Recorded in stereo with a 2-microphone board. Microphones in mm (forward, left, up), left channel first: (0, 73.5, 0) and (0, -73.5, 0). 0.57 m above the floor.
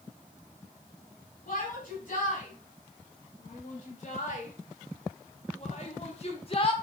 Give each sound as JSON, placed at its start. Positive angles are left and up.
{"t": 1.5, "sound": "a shout", "side_deg": 60, "distance_m": 4.5}